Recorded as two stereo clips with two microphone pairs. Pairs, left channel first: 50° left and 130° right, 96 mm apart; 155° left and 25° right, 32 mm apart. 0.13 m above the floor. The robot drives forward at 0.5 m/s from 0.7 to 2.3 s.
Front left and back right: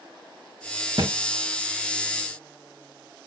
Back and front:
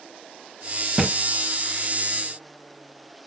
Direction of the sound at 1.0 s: 95° right.